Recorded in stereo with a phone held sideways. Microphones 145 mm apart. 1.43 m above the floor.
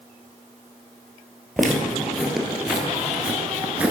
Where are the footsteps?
Centre (ahead or behind), 2 m; by 3.9 s 10° right (ahead or behind), 1.4 m.